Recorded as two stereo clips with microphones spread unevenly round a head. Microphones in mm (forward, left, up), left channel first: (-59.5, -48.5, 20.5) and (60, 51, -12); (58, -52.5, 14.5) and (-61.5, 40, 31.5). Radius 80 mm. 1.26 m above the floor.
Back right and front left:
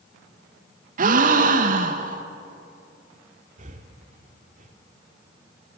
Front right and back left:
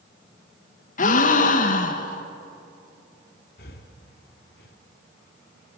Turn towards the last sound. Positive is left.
turn(degrees=-5)